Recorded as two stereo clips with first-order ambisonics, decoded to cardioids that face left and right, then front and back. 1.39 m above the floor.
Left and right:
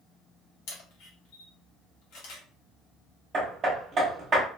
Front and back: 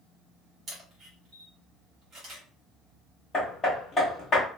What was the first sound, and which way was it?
A camera shutter, 110° left.